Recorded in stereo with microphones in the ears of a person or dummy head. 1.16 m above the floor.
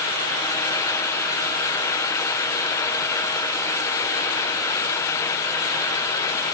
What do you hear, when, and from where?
Only background noise.